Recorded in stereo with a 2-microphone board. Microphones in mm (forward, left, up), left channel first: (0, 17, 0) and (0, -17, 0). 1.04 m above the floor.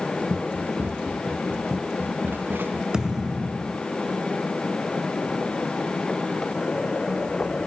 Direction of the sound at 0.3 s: 85° right.